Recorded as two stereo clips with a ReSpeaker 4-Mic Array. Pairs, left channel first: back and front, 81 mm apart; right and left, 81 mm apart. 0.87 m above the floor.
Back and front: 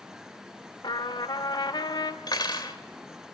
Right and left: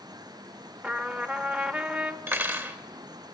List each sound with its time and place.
0.8 s a trumpet: 160° left, 1.1 m
2.3 s cutlery clinking: 150° left, 2 m